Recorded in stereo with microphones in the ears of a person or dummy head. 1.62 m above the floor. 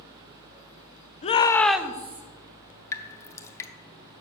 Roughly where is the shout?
Left.